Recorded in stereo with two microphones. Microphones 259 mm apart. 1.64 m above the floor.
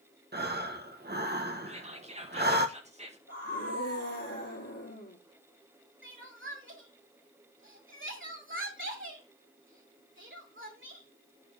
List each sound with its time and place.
0.3 s breathing: 40° right (ahead or behind), 1.2 m
1.7 s whispering: 25° right (ahead or behind), 2 m
3.3 s a scream: 75° left (ahead or behind), 3.5 m
6.0 s crying: 55° right (ahead or behind), 2 m